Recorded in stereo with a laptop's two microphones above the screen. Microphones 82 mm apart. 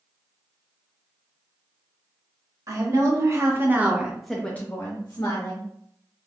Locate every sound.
2.7 s a woman speaking: 45° right (ahead or behind), 1.3 m; by 5.7 s 50° left (ahead or behind), 1.0 m